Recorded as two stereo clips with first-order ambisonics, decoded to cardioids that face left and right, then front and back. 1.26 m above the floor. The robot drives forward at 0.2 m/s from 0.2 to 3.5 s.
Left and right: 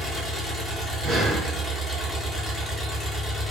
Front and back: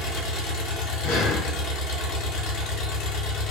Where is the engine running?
15° left, 1.4 m; by 3.5 s 30° left, 0.9 m.